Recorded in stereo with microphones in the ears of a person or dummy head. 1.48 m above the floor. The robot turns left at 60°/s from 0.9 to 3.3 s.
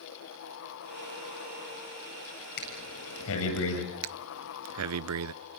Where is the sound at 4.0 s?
85° right, 0.6 m.